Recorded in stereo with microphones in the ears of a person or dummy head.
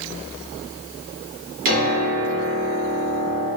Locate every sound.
1.6 s a piano: 40° right (ahead or behind), 0.7 m